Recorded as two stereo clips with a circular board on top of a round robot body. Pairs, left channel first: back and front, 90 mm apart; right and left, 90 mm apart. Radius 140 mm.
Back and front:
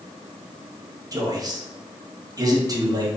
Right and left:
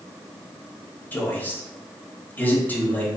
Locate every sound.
1.1 s a man speaking: 25° right, 1.4 m